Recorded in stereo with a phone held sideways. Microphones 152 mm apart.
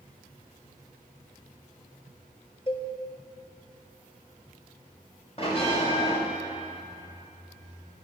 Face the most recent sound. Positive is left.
turn(degrees=40)  # may be behind; listen again after turning